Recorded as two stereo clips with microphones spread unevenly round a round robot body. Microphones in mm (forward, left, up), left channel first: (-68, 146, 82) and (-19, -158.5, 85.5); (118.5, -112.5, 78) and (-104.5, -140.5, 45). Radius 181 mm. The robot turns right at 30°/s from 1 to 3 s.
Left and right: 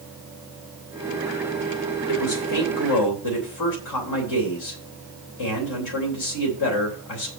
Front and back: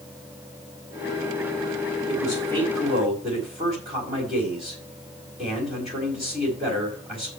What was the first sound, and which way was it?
A man speaking, 90° left.